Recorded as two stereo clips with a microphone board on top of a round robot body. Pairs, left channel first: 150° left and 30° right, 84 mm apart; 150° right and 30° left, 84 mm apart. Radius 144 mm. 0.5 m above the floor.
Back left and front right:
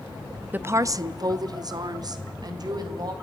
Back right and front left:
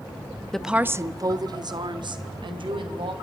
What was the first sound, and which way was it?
A woman speaking, 75° right.